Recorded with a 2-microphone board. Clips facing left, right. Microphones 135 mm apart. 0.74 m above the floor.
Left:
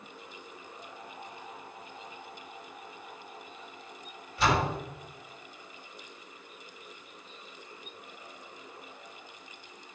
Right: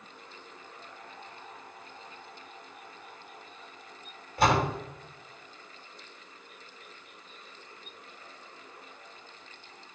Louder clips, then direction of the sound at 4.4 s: Right 2 dB; 50° right (ahead or behind).